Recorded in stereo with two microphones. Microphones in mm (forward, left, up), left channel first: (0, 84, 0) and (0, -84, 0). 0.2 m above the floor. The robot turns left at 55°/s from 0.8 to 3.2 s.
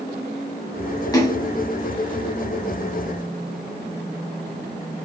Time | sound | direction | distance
1.1 | a splash | 20° left (ahead or behind) | 0.9 m